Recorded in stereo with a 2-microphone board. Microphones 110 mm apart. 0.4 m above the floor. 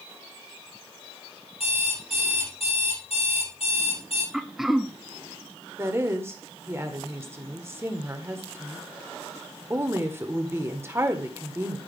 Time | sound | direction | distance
1.6 | an alarm clock | 70° left (ahead or behind) | 6.5 m
4.3 | throat clearing | centre (ahead or behind) | 0.7 m
5.8 | a woman speaking | 25° right (ahead or behind) | 1.3 m